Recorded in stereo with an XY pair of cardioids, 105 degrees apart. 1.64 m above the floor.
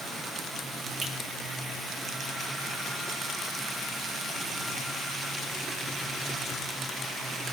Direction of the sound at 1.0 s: 55° right.